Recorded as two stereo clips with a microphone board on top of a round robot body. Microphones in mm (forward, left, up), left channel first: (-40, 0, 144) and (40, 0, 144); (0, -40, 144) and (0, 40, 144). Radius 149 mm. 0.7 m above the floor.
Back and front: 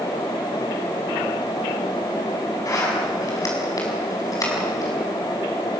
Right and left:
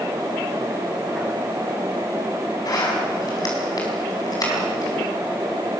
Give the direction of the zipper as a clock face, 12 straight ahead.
4 o'clock.